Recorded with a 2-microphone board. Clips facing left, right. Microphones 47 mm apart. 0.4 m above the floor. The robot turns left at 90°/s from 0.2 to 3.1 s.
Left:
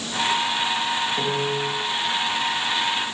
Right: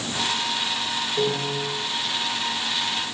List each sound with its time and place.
1.2 s a piano: 25° right, 6 m; by 1.7 s 70° right, 6 m